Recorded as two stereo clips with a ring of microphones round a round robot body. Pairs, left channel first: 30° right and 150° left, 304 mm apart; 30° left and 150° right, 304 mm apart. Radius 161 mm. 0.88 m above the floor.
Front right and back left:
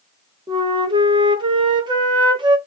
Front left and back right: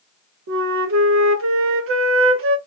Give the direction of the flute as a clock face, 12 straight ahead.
5 o'clock.